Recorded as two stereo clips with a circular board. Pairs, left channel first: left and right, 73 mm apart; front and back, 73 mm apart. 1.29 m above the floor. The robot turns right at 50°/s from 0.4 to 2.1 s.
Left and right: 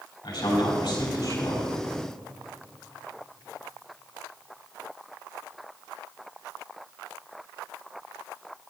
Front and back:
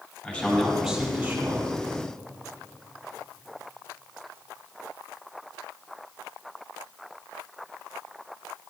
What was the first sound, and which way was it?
A man speaking, 70° left.